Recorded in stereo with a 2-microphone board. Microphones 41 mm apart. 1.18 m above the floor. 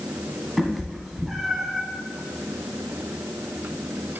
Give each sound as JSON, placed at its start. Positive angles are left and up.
{"t": 0.6, "sound": "a cat meowing", "side_deg": 0, "distance_m": 1.6}